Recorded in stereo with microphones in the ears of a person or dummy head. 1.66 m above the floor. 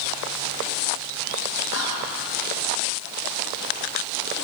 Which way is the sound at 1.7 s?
65° left (ahead or behind).